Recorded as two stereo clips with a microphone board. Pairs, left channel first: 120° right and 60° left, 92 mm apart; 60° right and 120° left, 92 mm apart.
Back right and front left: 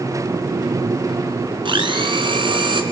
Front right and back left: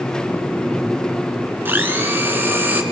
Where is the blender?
55° left, 2 m.